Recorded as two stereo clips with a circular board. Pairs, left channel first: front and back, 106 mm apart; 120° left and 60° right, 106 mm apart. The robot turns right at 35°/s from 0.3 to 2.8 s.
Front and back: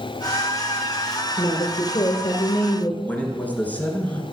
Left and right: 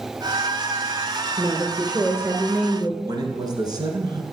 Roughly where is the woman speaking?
Ahead.